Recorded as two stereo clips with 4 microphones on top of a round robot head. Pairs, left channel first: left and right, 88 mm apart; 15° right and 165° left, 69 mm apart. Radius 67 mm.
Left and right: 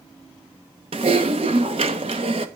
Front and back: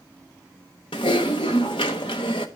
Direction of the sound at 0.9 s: 50° right.